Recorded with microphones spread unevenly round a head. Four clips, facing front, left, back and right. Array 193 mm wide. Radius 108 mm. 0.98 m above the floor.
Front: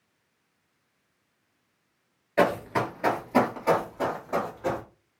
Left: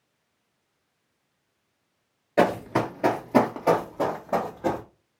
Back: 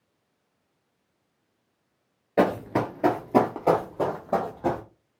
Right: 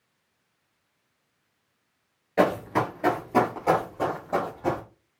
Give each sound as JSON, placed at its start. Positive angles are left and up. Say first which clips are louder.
{"t": 2.4, "sound": "running footsteps", "louder": "left 1 dB, back 1 dB", "azimuth_deg": 145, "distance_m": 1.0}